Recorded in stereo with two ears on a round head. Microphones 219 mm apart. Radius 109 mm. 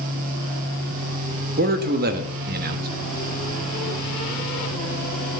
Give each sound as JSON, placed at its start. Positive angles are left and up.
{"t": 1.6, "sound": "a man speaking", "side_deg": -40, "distance_m": 1.1}